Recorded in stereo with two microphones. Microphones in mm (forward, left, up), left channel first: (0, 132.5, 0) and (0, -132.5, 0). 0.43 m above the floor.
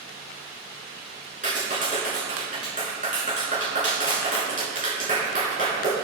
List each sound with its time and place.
1.4 s a clap: 30° right (ahead or behind), 5 m